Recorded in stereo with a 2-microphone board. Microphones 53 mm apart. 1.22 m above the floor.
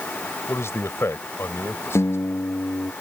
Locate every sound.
0.5 s a man speaking: 55° left (ahead or behind)
1.9 s a guitar: 90° left